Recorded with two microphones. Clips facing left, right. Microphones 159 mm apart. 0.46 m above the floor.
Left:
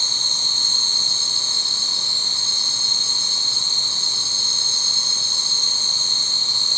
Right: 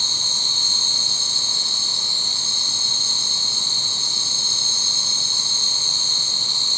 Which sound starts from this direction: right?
An insect, at 0.0 s.